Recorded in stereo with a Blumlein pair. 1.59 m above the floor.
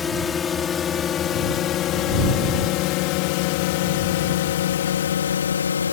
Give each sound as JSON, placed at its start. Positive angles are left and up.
{"t": 0.0, "sound": "a drone", "azimuth_deg": 20}